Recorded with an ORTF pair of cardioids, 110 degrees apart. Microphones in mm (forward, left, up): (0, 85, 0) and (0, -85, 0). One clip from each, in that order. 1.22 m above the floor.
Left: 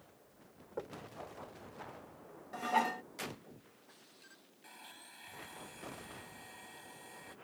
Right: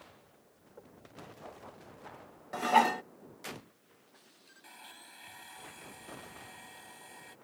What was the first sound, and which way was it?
Knocking, 65° left.